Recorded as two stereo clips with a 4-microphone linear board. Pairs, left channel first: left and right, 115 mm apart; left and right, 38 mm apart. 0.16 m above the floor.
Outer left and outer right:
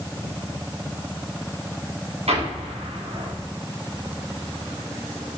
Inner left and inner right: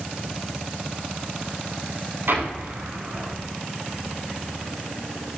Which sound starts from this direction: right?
An explosion, at 2.3 s.